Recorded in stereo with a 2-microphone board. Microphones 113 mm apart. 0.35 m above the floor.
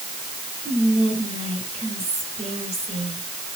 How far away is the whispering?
About 5.5 m.